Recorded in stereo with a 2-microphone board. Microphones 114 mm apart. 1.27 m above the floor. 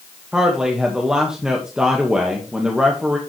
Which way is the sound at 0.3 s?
5° right (ahead or behind).